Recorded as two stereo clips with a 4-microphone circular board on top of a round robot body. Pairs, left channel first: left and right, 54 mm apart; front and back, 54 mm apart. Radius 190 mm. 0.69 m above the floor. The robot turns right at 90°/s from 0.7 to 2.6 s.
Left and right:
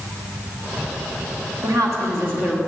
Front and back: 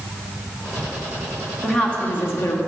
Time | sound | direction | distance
1.6 | a woman speaking | 100° right | 2 m